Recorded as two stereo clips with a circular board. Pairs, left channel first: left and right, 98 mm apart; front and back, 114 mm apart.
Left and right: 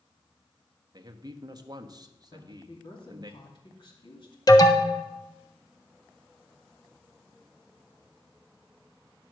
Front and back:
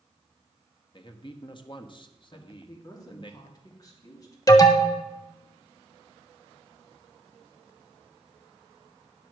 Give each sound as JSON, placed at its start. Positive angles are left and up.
{"t": 0.9, "sound": "a man speaking", "azimuth_deg": -40, "distance_m": 1.0}
{"t": 2.3, "sound": "a woman speaking", "azimuth_deg": 55, "distance_m": 2.5}
{"t": 4.5, "sound": "an alarm", "azimuth_deg": 50, "distance_m": 1.1}